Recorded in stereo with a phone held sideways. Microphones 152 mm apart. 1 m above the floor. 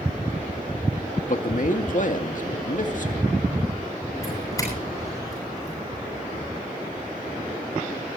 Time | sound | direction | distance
1.3 | a man speaking | 60° left (ahead or behind) | 1.9 m
4.2 | a doorbell | 20° left (ahead or behind) | 9.5 m